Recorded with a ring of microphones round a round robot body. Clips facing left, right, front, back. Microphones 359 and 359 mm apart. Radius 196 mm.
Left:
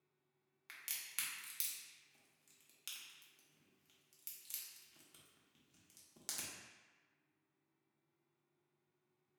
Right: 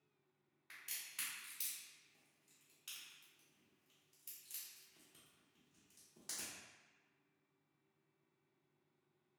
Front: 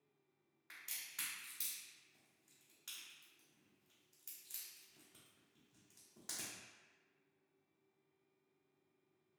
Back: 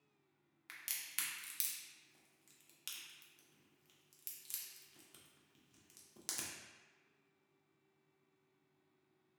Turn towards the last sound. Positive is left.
turn(degrees=140)